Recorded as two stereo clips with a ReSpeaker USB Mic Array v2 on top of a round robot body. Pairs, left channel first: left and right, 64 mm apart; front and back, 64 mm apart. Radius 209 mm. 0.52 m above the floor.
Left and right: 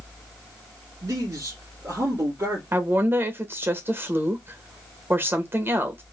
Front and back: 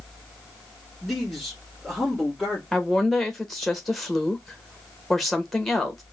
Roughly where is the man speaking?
Right.